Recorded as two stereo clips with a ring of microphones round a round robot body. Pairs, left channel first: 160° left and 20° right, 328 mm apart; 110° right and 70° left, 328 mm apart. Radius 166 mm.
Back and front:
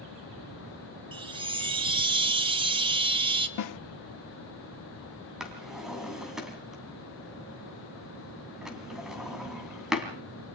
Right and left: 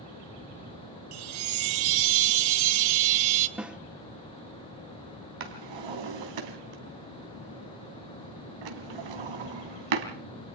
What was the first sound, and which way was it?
A chime, 50° left.